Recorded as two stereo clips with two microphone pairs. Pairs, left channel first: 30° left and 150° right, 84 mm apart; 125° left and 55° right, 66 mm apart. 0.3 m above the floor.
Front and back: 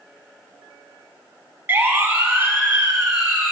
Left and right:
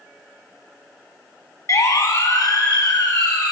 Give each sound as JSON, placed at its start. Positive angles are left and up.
{"t": 1.7, "sound": "a siren", "azimuth_deg": 150, "distance_m": 2.5}